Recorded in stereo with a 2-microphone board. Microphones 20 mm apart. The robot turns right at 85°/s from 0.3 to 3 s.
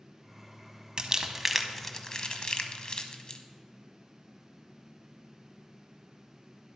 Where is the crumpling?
35° right (ahead or behind), 0.7 m; by 3.4 s 40° left (ahead or behind), 0.7 m.